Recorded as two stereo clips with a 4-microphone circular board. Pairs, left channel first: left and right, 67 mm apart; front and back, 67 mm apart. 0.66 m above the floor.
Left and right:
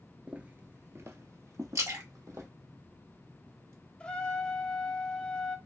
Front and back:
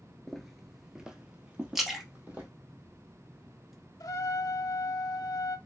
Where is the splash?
95° right, 1.1 m.